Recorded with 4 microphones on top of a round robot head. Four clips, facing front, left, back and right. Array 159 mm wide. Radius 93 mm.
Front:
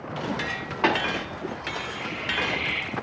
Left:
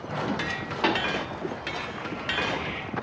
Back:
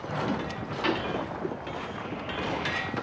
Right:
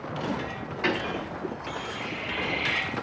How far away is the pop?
About 2 m.